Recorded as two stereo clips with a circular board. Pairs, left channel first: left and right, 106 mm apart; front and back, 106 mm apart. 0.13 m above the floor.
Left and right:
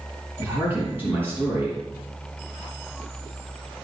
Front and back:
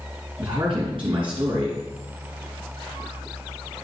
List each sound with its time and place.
0.4 s a man speaking: 155° right, 4 m